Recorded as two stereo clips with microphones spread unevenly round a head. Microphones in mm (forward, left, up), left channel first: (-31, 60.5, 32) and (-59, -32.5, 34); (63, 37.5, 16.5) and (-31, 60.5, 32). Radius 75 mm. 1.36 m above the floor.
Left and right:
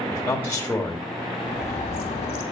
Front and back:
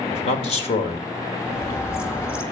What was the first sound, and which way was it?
A man speaking, 5° right.